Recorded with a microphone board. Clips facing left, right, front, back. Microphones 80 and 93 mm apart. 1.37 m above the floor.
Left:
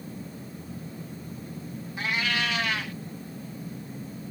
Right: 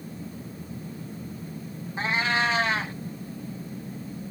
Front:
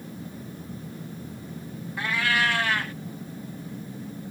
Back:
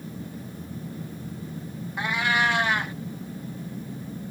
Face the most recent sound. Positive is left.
turn(degrees=-120)